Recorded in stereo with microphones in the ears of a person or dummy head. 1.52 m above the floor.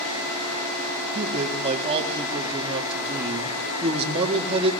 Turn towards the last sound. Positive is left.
turn(degrees=-35)  # may be behind; listen again after turning